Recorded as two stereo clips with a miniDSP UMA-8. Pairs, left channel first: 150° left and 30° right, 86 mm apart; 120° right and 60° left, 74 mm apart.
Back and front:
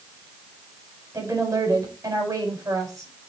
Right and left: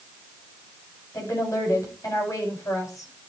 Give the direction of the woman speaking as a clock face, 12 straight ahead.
3 o'clock.